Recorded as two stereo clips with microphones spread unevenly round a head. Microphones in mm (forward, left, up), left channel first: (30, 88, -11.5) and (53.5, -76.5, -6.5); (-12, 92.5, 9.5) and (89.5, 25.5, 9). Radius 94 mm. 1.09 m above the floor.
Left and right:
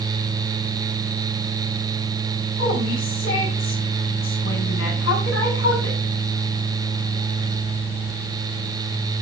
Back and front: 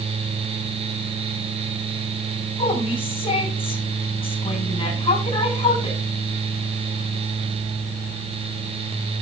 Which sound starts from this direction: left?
A woman speaking, at 2.6 s.